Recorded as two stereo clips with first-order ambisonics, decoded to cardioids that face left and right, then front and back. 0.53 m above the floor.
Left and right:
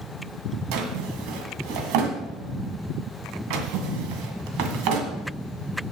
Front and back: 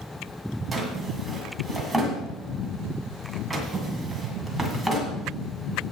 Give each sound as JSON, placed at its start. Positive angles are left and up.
{"t": 0.7, "sound": "a drawer", "azimuth_deg": -95, "distance_m": 2.0}